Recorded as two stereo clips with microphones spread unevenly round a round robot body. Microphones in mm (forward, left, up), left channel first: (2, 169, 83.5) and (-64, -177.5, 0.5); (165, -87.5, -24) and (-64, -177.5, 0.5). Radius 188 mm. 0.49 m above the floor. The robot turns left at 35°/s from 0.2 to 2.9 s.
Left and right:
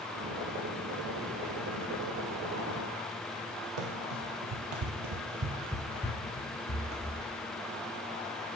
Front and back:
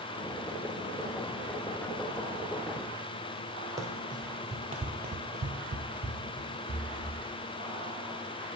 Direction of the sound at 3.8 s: 85° right.